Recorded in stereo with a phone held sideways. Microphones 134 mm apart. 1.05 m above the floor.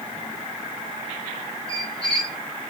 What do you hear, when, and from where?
1.7 s a squeak: 40° left (ahead or behind), 1.2 m